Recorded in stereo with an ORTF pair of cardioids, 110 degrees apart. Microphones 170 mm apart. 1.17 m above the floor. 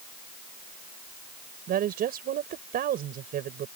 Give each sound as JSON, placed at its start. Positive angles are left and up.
{"t": 1.7, "sound": "a woman speaking", "azimuth_deg": -60}